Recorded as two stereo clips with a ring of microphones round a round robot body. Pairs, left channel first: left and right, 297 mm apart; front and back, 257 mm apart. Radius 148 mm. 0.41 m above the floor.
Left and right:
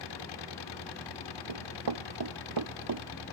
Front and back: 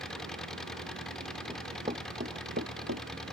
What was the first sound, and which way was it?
An engine running, 90° left.